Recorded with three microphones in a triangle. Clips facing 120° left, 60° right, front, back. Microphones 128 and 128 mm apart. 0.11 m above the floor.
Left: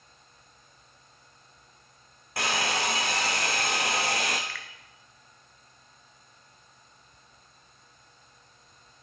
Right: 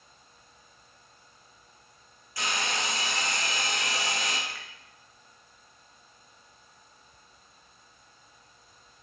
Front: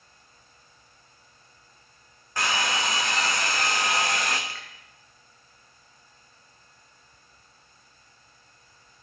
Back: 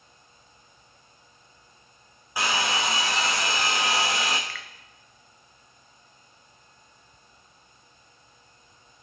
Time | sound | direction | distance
2.4 | a hair dryer | 100° left | 1.5 m
4.5 | a finger snap | 25° right | 1.2 m